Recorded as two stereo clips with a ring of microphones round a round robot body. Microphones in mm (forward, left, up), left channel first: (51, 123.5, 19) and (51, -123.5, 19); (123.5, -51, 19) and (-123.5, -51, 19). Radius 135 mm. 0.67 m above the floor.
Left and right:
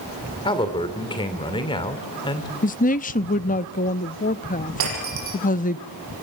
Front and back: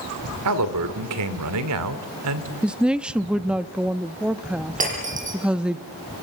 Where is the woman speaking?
95° left, 0.6 m.